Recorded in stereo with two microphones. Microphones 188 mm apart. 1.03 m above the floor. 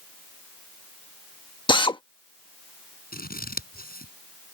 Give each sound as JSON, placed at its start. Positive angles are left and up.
{"t": 1.7, "sound": "a drill", "side_deg": 25}
{"t": 3.1, "sound": "scissors", "side_deg": 50}